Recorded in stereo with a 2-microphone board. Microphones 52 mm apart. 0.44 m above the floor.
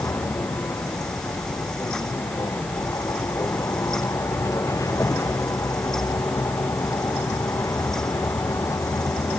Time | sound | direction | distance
0.0 | a vehicle | 90° left | ?